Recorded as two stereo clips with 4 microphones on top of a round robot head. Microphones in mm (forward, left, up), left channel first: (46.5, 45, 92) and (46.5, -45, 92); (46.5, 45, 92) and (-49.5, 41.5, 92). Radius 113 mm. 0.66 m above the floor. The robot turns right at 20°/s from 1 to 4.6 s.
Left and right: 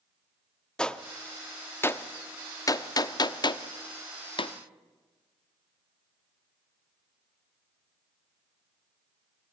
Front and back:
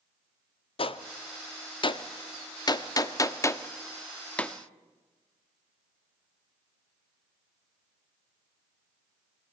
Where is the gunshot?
10° left, 1.1 m; by 4.5 s 80° left, 1.1 m.